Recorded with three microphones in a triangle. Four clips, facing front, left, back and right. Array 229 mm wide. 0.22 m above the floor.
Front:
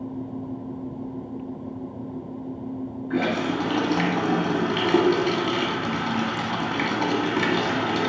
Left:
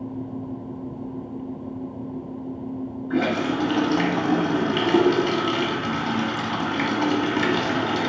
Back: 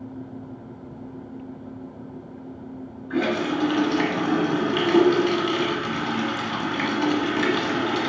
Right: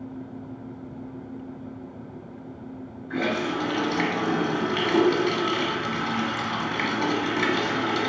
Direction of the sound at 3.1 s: 35° left.